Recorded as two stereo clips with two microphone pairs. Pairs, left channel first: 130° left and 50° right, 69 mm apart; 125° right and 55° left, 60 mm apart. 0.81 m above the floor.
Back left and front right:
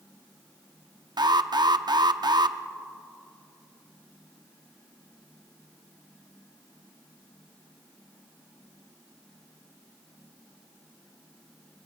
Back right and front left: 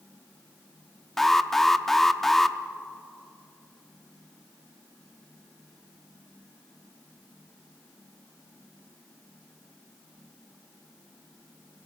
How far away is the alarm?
About 0.7 m.